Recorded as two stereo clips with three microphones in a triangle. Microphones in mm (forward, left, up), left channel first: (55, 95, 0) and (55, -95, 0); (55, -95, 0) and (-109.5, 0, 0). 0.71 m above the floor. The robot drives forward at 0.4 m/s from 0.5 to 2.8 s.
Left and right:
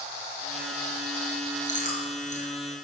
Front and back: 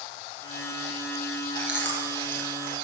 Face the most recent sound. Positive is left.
turn(degrees=140)